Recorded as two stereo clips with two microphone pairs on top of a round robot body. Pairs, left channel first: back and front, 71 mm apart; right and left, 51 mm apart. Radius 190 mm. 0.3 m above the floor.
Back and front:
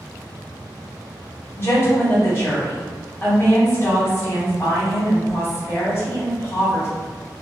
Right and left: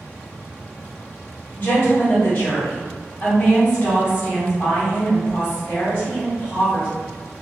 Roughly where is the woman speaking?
Behind right.